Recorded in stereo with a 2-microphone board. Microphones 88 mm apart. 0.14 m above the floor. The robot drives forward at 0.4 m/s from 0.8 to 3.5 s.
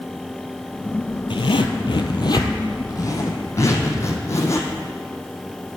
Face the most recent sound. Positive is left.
turn(degrees=35)  # may be behind; listen again after turning